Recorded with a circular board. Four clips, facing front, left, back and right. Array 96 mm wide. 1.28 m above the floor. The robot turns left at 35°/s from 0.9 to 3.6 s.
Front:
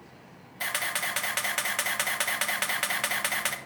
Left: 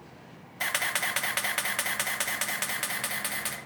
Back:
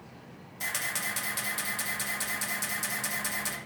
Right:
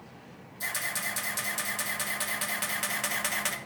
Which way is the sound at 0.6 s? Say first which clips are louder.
Left 5 dB, front 4 dB; 70° left.